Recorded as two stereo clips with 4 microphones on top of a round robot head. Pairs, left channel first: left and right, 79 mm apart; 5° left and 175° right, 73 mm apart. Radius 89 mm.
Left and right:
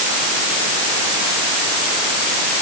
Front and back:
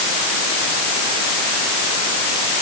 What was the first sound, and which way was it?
Only background noise.